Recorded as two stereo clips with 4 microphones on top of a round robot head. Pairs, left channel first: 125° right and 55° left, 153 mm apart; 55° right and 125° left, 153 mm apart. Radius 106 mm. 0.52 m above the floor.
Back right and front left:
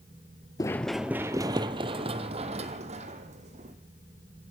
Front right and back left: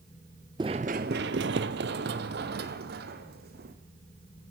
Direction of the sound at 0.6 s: 175° left.